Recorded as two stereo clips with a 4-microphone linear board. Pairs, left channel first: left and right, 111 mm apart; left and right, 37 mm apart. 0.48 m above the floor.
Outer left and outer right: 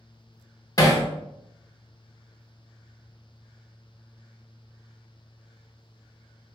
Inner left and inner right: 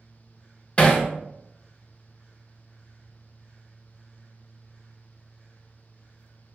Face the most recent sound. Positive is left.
turn(degrees=30)  # may be behind; listen again after turning